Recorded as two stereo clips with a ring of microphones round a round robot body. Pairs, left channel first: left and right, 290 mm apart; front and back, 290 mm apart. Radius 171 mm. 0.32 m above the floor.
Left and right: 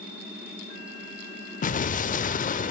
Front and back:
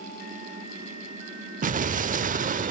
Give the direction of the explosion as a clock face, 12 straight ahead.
8 o'clock.